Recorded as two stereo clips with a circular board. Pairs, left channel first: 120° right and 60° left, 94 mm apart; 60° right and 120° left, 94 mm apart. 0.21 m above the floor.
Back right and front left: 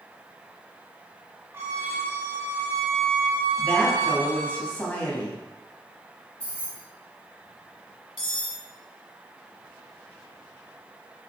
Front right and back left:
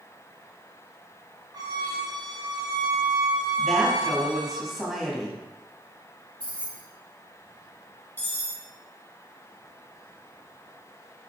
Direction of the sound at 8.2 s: 120° right.